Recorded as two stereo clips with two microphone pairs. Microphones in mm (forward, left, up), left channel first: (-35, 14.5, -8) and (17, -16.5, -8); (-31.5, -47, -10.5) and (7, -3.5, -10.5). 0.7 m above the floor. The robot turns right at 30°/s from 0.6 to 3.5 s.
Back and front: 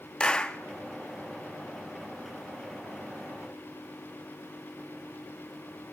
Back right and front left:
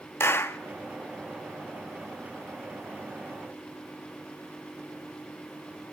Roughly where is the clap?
Behind right.